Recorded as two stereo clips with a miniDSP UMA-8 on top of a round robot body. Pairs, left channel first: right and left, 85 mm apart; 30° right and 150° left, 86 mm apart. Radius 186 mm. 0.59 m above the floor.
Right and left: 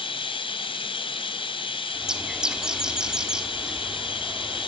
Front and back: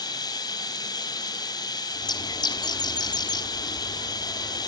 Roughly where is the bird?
Ahead.